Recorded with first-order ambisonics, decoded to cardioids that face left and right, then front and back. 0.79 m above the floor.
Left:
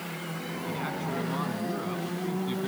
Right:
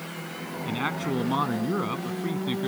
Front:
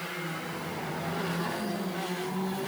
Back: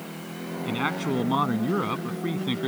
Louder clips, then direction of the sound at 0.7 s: Right 5 dB, back 11 dB; 145° right.